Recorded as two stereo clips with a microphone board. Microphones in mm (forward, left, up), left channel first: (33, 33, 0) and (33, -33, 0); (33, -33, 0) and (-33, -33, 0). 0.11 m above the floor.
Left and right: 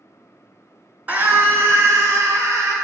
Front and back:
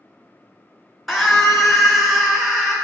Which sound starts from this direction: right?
A scream, at 1.1 s.